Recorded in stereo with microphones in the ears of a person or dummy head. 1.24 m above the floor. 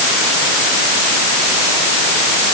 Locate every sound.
Only background noise.